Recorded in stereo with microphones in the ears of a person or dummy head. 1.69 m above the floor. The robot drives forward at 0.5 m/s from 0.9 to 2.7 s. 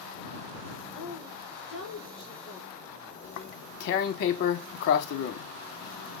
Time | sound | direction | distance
0.9 | a woman speaking | 30° left (ahead or behind) | 3.5 m
3.2 | tearing paper | 55° left (ahead or behind) | 0.5 m